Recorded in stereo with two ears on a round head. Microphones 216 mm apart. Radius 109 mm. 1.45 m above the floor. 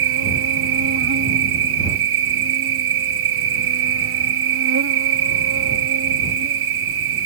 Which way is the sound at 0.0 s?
60° right (ahead or behind).